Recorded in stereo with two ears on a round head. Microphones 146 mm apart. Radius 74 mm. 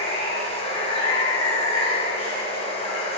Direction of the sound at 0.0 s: 40° left (ahead or behind).